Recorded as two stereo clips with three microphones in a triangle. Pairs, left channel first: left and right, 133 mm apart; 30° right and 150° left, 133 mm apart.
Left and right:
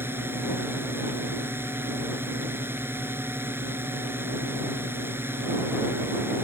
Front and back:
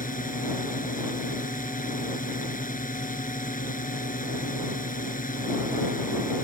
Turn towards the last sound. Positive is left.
turn(degrees=-15)